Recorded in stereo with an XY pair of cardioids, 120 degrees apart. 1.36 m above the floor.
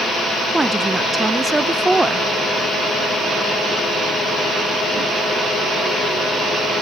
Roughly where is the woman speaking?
Ahead.